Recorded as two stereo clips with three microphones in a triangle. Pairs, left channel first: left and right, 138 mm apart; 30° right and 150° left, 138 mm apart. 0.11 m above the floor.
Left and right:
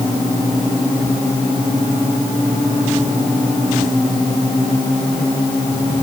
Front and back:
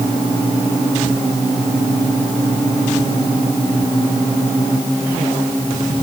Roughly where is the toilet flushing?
No toilet flushing in this recording.